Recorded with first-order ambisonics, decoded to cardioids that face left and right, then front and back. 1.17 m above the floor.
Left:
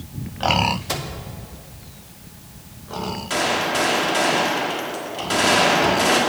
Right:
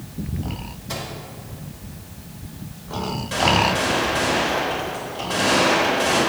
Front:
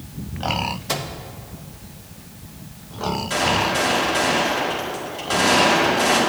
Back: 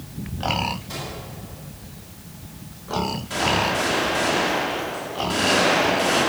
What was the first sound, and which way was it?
A microwave, 40° left.